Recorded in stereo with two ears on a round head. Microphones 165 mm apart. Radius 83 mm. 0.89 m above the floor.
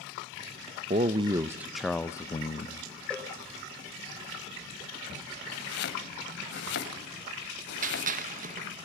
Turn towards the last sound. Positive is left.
turn(degrees=-45)  # may be behind; listen again after turning